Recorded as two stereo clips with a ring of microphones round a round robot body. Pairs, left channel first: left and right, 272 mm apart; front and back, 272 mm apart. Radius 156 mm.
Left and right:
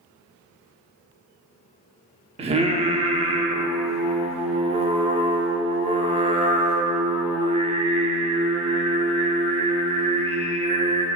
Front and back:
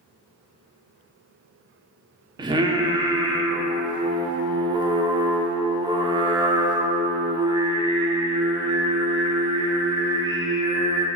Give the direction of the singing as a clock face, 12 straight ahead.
4 o'clock.